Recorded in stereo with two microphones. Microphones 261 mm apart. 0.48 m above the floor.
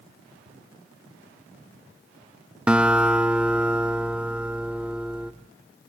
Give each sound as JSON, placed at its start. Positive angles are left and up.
{"t": 2.7, "sound": "a guitar", "side_deg": -5, "distance_m": 0.8}